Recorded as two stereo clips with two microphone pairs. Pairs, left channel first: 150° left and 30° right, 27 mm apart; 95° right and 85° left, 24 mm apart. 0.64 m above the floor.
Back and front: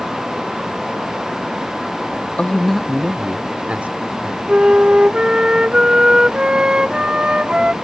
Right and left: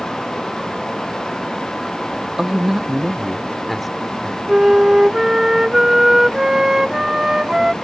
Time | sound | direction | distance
2.4 | a man speaking | 135° left | ?
4.5 | a flute | 20° left | ?